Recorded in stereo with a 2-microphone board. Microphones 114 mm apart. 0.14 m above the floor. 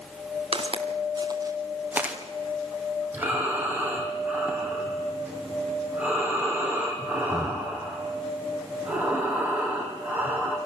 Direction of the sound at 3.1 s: 15° right (ahead or behind).